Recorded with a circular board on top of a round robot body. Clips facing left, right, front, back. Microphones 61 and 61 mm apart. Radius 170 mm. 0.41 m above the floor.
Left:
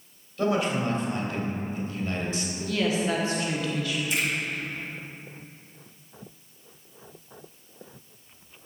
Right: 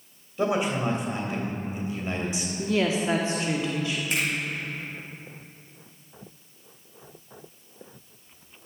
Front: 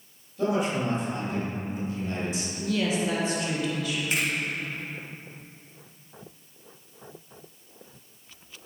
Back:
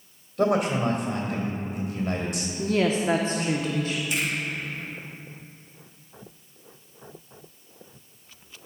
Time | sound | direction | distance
0.4 | a man speaking | 160° right | 3 m
2.6 | a woman speaking | 150° right | 1.3 m
4.1 | a finger snap | 50° right | 4 m